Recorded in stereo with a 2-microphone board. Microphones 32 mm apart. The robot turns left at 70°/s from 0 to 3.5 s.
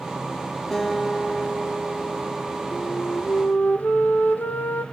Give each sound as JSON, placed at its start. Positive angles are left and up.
{"t": 0.7, "sound": "a guitar", "azimuth_deg": 10, "distance_m": 3.5}
{"t": 2.7, "sound": "a flute", "azimuth_deg": 125, "distance_m": 2.5}